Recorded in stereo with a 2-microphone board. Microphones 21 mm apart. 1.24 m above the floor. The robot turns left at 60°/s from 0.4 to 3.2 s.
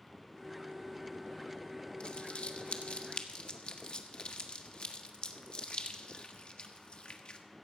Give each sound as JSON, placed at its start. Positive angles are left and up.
{"t": 2.0, "sound": "crumpling", "side_deg": 50, "distance_m": 1.3}